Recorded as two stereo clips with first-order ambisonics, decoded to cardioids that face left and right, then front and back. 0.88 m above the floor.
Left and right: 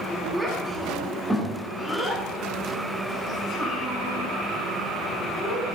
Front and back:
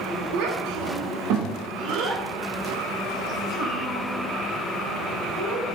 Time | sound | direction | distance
0.3 | a child speaking | straight behind | 1.0 m